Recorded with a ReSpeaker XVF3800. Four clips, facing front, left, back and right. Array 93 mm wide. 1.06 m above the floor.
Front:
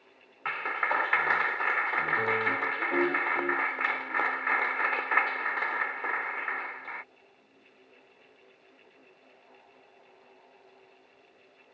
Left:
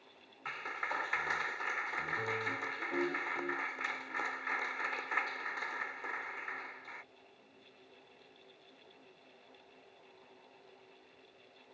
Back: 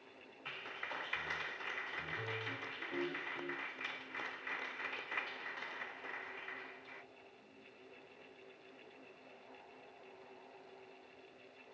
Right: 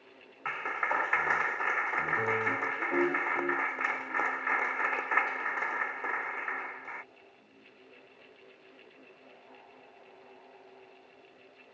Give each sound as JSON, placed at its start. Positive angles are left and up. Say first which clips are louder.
{"t": 0.5, "sound": "a clap", "louder": "right 7 dB, front 17 dB", "azimuth_deg": -25}